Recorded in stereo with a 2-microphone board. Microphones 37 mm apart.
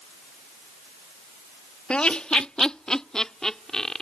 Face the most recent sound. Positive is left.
turn(degrees=10)  # may be behind; listen again after turning